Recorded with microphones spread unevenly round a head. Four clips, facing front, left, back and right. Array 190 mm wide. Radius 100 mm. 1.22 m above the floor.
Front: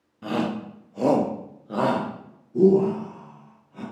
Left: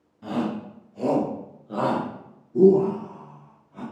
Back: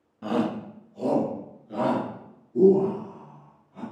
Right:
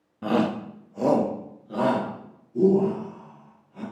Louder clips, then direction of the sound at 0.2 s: Right 4 dB, even; 70° right.